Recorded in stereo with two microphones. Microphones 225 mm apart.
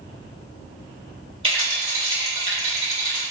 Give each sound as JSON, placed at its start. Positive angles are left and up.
{"t": 1.4, "sound": "a rattle", "side_deg": -25, "distance_m": 1.0}